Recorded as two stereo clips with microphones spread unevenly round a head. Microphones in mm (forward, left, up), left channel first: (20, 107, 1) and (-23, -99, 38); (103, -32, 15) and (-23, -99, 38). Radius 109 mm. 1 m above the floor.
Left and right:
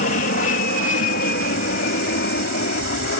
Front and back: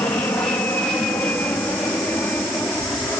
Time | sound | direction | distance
0.0 | an aircraft | 100° left | ?